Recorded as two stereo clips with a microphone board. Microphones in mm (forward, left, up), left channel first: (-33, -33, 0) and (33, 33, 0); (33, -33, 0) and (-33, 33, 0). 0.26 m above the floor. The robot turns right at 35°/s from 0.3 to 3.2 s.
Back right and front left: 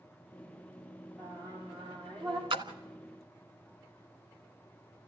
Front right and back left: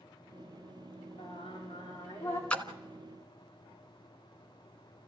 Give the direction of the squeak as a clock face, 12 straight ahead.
I don't hear a squeak.